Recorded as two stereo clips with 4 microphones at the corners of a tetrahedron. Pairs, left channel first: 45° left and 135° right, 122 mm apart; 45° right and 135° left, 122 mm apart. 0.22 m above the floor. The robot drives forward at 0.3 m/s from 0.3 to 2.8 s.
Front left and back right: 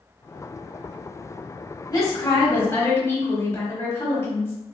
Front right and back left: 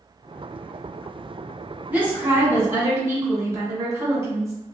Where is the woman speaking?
70° left, 1.2 m; by 4.5 s 95° left, 1.1 m.